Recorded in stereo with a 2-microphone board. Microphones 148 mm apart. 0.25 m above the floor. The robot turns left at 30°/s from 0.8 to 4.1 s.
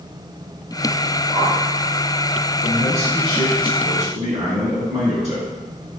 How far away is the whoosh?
About 2.5 m.